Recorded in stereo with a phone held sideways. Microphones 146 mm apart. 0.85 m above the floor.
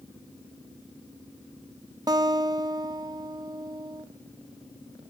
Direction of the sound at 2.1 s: 25° right (ahead or behind).